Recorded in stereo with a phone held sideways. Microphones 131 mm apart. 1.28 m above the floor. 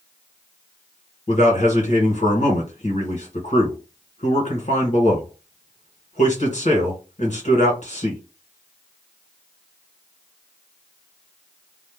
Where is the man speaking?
65° left (ahead or behind), 1.7 m.